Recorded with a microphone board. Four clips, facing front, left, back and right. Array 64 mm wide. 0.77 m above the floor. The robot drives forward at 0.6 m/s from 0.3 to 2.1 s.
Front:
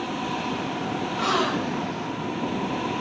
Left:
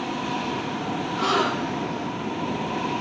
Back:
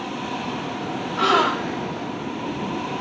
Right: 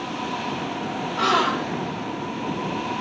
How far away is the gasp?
About 0.9 m.